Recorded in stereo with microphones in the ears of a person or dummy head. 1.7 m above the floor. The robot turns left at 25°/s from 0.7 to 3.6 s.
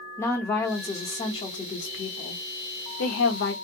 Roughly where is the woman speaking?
Behind.